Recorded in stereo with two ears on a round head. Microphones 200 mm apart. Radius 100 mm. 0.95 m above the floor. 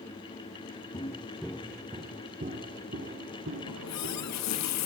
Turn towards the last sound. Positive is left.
turn(degrees=85)